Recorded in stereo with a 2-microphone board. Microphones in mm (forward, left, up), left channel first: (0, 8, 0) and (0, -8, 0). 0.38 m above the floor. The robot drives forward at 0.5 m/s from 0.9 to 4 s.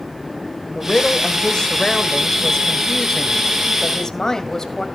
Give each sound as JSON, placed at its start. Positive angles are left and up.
{"t": 0.8, "sound": "a woman speaking", "side_deg": 45, "distance_m": 1.5}